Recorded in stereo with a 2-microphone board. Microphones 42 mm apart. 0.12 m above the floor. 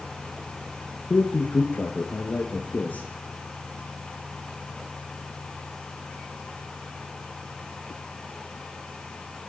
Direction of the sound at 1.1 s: 60° left (ahead or behind).